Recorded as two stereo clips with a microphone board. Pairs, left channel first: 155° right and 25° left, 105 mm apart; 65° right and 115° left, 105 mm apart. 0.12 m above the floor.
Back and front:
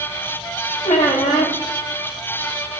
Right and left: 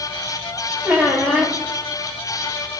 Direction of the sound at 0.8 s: 170° right.